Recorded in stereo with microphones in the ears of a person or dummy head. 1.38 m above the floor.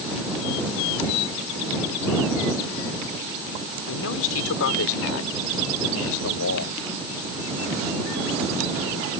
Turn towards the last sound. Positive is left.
turn(degrees=85)